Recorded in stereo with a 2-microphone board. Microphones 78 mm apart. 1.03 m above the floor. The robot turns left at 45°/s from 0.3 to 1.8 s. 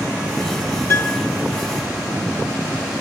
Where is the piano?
35° left (ahead or behind), 1.0 m; by 1.3 s 20° left (ahead or behind), 1.0 m.